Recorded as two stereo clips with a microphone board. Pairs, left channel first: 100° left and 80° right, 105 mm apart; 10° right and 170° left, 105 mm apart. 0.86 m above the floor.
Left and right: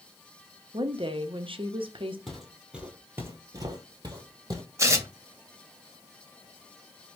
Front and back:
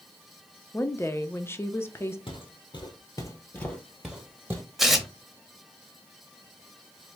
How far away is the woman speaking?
About 0.6 m.